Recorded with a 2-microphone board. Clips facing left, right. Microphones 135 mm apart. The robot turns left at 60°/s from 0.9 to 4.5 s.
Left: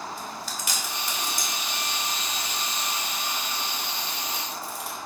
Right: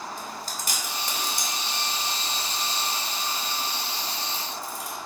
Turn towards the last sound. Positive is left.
turn(degrees=65)  # may be behind; listen again after turning